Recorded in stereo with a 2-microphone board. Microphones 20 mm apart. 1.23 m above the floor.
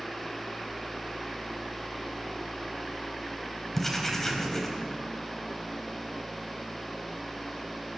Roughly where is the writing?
Centre.